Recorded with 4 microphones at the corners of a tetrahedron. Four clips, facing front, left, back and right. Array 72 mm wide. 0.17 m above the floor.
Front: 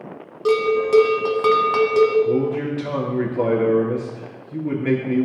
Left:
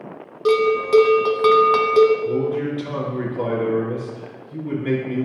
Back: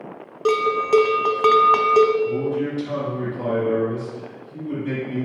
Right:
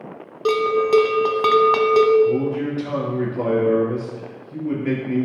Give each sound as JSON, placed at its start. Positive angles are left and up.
{"t": 0.5, "sound": "a bell", "azimuth_deg": -160, "distance_m": 0.6}
{"t": 2.2, "sound": "a man speaking", "azimuth_deg": -15, "distance_m": 3.0}